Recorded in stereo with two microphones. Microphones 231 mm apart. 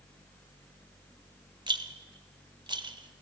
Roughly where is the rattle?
Centre.